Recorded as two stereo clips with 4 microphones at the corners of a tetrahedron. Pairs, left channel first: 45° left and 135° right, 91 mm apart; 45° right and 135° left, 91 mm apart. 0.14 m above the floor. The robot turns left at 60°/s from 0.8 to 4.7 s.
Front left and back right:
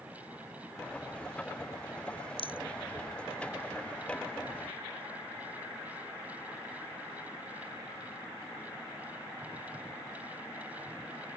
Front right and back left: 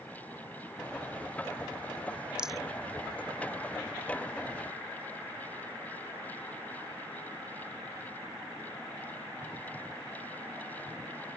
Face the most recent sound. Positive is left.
turn(degrees=-85)